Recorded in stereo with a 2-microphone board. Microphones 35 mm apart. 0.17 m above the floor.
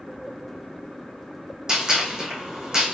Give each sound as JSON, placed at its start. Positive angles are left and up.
{"t": 1.7, "sound": "a gunshot", "side_deg": -20, "distance_m": 2.0}